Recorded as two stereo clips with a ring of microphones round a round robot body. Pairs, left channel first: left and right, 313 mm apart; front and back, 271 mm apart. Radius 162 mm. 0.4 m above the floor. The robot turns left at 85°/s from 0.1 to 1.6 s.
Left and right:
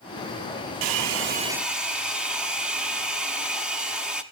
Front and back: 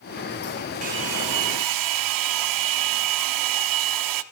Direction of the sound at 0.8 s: 110° right.